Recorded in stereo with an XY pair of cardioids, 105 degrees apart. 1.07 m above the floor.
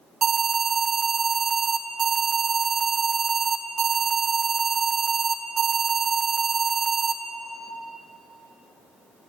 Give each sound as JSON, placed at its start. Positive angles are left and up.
{"t": 0.2, "sound": "an alarm", "azimuth_deg": -50, "distance_m": 0.6}